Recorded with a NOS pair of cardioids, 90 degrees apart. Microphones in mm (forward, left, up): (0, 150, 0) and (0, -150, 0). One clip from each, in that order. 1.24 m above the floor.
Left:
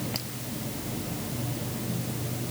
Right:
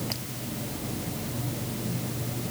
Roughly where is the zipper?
No zipper in this recording.